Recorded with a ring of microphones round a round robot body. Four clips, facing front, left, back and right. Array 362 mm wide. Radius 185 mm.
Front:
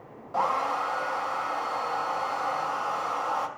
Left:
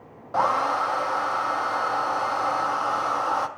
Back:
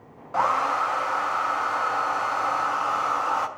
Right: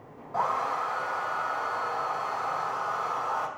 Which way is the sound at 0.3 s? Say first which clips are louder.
Left 6 dB, back 4 dB; 105° left.